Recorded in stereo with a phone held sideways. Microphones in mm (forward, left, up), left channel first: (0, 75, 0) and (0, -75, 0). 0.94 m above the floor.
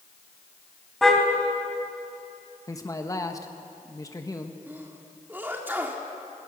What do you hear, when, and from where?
1.0 s a car horn: centre (ahead or behind), 2.5 m
2.7 s a man speaking: 20° left (ahead or behind), 1.1 m
4.7 s a sneeze: 15° right (ahead or behind), 1.7 m